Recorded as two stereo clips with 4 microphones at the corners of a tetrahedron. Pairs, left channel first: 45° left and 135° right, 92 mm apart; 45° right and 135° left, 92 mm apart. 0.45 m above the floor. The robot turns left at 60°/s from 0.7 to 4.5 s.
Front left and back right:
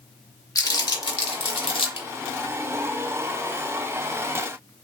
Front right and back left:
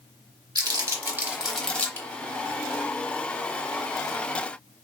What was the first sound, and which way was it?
Crumpling, 95° left.